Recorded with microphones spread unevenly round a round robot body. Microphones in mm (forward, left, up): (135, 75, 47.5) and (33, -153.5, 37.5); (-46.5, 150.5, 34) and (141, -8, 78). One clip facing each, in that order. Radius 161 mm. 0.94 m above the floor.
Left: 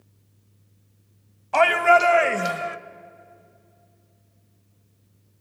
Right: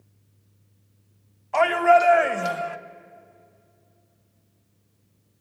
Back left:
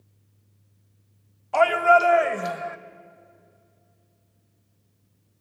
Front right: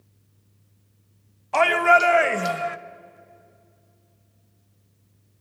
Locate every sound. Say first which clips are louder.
1.5 s a shout: right 1 dB, back left 1 dB; 30° left, 1.6 m; by 2.8 s 5° left, 1.1 m